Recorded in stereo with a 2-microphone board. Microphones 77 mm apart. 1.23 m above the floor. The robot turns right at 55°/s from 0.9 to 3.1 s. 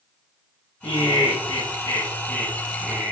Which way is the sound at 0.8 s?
90° left.